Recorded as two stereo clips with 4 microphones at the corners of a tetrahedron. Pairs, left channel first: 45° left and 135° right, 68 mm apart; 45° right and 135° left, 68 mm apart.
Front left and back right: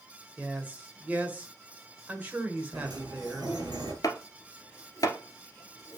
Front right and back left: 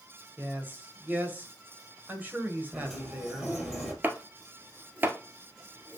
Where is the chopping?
75° left, 1.2 m.